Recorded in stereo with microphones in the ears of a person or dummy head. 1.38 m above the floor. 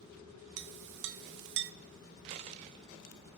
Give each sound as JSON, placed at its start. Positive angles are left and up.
{"t": 0.6, "sound": "a clink", "side_deg": -60, "distance_m": 0.7}
{"t": 2.3, "sound": "a dropped coin", "side_deg": -30, "distance_m": 0.9}